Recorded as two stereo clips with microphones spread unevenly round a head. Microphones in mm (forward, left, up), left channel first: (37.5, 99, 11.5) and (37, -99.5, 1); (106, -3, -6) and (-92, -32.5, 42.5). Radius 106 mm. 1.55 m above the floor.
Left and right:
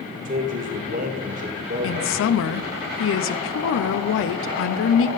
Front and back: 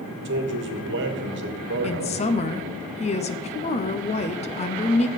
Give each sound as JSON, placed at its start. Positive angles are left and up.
{"t": 0.2, "sound": "a man speaking", "azimuth_deg": -145, "distance_m": 1.5}
{"t": 1.8, "sound": "a woman speaking", "azimuth_deg": 70, "distance_m": 0.6}